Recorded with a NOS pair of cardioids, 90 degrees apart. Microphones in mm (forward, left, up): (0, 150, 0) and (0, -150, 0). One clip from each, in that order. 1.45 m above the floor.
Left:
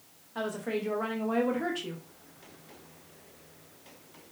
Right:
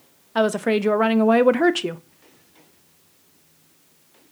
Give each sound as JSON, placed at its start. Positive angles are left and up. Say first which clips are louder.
{"t": 0.3, "sound": "a woman speaking", "louder": "right 13 dB", "azimuth_deg": -65, "distance_m": 0.5}